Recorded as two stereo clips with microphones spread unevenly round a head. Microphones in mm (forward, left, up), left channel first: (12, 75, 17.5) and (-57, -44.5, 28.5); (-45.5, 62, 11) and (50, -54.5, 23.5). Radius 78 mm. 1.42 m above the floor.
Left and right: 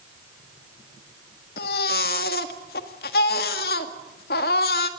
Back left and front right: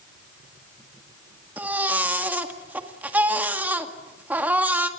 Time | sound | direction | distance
1.6 | a baby crying | 30° left | 1.8 m